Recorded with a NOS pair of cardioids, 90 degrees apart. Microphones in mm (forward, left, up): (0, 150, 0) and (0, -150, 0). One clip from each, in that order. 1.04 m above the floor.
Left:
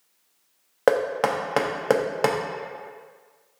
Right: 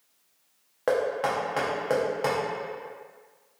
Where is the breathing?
No breathing in this recording.